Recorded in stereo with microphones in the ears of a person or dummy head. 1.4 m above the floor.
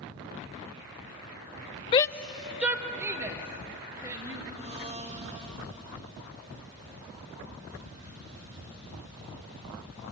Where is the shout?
25° left (ahead or behind), 0.5 m; by 4.4 s 25° right (ahead or behind), 3.5 m.